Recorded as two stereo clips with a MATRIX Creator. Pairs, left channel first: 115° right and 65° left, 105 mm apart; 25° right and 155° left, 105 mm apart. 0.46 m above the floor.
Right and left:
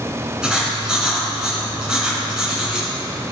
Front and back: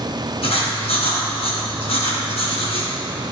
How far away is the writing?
About 2.5 m.